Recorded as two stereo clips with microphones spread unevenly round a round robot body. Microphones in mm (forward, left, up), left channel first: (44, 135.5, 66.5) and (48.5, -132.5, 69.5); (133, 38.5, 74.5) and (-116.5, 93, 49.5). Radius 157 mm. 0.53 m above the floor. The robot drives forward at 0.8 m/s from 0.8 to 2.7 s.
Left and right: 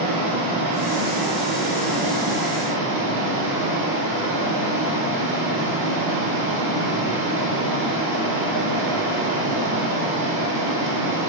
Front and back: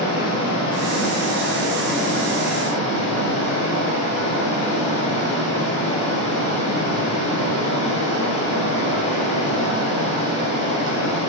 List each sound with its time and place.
0.0 s running water: 80° right, 2.5 m; by 11.3 s 115° right, 3 m